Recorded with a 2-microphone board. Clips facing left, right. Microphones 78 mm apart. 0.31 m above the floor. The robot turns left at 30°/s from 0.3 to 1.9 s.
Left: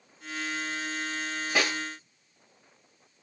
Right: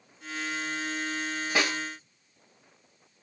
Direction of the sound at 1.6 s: 5° right (ahead or behind).